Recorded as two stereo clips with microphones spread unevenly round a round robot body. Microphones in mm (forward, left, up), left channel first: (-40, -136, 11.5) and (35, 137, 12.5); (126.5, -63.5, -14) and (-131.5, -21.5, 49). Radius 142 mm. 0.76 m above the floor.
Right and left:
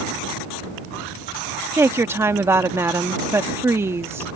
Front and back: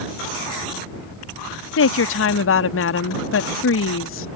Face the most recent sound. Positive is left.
turn(degrees=-5)